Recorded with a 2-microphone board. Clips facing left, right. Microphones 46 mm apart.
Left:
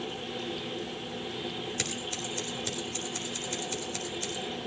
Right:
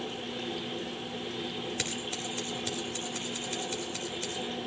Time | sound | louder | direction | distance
1.8 | scissors | even | 5° right (ahead or behind) | 3.5 m